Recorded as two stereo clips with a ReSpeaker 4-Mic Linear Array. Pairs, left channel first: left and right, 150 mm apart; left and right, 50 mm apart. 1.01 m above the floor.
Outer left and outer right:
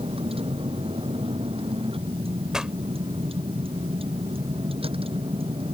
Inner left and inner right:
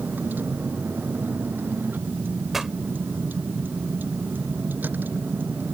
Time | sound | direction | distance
0.0 | a vehicle | 40° right (ahead or behind) | ?
2.5 | a pop | 5° right (ahead or behind) | ?